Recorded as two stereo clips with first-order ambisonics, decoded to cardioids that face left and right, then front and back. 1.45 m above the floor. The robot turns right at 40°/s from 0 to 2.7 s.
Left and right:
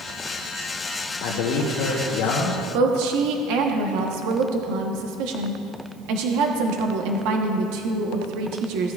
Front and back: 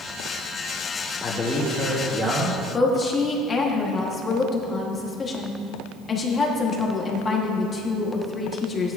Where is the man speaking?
65° left, 1.1 m; by 2.6 s 125° left, 1.1 m.